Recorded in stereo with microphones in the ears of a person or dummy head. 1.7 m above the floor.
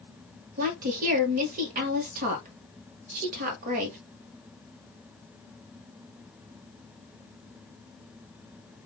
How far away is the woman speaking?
About 0.8 m.